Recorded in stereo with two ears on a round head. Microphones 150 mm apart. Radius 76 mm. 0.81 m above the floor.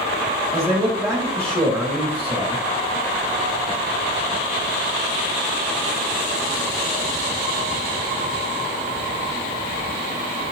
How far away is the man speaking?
About 1.6 m.